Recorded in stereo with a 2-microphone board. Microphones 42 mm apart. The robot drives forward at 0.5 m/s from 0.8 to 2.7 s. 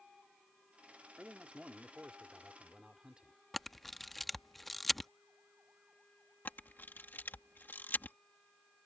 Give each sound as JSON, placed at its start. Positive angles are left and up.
{"t": 1.2, "sound": "a man speaking", "side_deg": -30}
{"t": 3.5, "sound": "a camera shutter", "side_deg": 5}
{"t": 6.5, "sound": "a camera shutter", "side_deg": 55}